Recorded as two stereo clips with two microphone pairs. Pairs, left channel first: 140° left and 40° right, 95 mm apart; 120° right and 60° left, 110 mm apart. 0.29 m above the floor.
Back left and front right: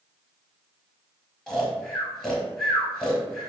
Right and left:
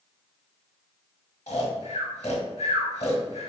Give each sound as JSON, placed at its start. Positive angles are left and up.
{"t": 1.5, "sound": "snoring", "azimuth_deg": -135, "distance_m": 1.1}